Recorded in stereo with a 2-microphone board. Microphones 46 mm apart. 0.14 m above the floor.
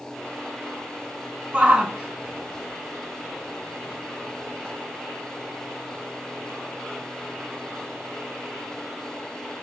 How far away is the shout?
About 1.6 m.